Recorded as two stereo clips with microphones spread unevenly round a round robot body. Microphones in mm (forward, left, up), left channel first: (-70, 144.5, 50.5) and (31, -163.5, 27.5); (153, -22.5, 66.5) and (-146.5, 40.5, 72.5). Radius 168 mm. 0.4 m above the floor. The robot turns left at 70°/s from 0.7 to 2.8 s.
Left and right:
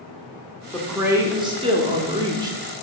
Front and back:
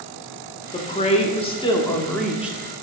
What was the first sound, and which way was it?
A woman speaking, 10° left.